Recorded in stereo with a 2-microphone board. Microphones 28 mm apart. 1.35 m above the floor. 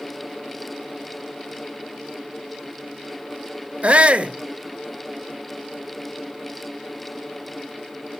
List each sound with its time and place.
3.8 s a shout: 50° right (ahead or behind), 1.0 m